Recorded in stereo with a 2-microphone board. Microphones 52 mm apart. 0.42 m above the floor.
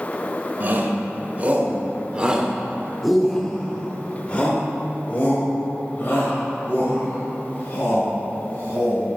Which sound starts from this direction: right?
A shout, at 0.6 s.